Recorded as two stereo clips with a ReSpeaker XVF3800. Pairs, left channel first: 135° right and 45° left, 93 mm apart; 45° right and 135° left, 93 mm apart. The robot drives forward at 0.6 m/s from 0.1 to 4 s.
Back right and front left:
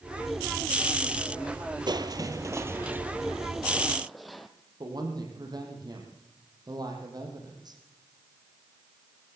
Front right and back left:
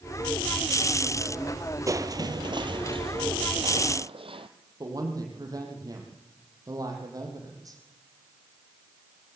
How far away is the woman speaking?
About 6.5 m.